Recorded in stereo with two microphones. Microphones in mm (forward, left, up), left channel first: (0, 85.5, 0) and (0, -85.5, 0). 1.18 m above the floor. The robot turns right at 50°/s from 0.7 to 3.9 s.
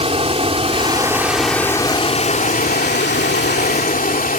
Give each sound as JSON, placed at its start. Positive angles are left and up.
{"t": 0.0, "sound": "running water", "azimuth_deg": -35}